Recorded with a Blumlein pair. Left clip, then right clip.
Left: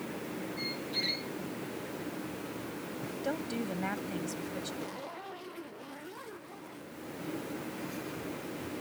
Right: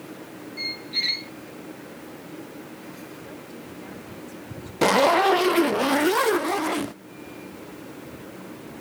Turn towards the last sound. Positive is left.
turn(degrees=-40)